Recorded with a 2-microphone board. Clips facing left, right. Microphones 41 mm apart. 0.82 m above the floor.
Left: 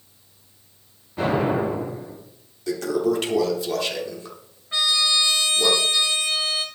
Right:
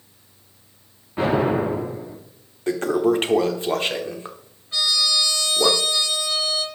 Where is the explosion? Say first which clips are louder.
Right 2 dB; 25° right (ahead or behind), 5.5 m.